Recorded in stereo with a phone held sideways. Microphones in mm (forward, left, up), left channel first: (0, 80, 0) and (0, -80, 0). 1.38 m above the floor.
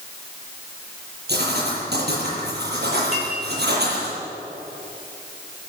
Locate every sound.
1.3 s writing: 80° right, 9.5 m
3.1 s a clink: 5° right (ahead or behind), 6 m